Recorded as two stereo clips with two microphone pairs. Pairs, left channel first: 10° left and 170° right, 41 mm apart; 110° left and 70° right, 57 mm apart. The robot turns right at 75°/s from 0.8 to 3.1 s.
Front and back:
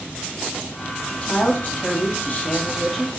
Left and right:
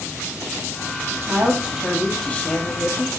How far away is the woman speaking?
About 0.9 m.